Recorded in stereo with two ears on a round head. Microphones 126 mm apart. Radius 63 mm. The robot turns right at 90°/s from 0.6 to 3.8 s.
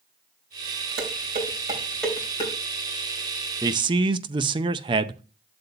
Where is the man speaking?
25° right (ahead or behind), 0.5 m; by 5.2 s 35° right (ahead or behind), 0.5 m.